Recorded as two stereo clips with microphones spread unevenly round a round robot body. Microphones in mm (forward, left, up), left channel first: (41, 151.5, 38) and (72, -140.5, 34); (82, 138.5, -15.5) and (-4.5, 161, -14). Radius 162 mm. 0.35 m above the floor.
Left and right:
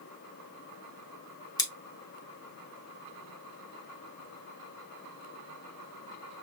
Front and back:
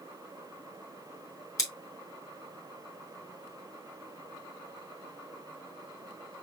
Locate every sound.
1.6 s scissors: 20° left, 1.7 m